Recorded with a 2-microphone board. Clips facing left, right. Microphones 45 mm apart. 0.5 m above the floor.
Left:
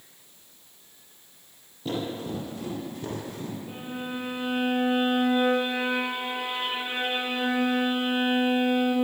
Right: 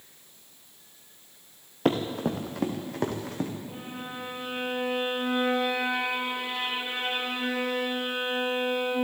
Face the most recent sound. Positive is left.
turn(degrees=40)  # may be behind; listen again after turning